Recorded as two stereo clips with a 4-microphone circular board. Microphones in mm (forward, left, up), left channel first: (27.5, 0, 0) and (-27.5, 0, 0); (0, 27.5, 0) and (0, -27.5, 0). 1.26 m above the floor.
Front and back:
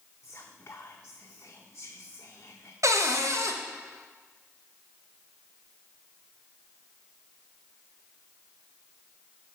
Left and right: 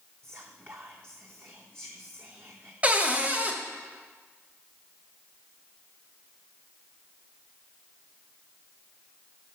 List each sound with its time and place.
0.2 s whispering: 45° right, 0.6 m
2.8 s a cupboard door: 155° right, 0.8 m